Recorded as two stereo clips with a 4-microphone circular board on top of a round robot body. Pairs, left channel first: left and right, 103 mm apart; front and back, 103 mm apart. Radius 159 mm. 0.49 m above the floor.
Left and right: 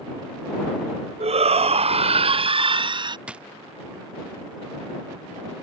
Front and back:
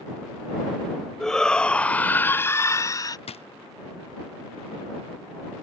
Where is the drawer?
10° right.